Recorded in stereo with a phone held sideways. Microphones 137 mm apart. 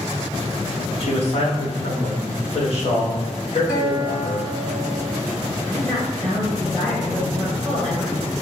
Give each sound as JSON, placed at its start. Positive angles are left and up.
{"t": 1.0, "sound": "a man speaking", "side_deg": 50, "distance_m": 1.0}
{"t": 3.7, "sound": "a guitar", "side_deg": 20, "distance_m": 1.4}
{"t": 5.7, "sound": "a woman speaking", "side_deg": 5, "distance_m": 1.5}